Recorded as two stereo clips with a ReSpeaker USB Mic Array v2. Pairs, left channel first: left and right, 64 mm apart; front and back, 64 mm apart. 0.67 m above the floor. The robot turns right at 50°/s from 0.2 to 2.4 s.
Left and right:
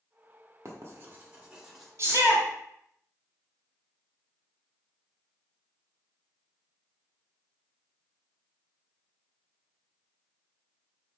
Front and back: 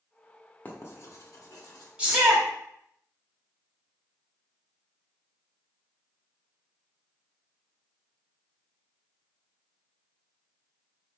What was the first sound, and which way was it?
Writing, 60° right.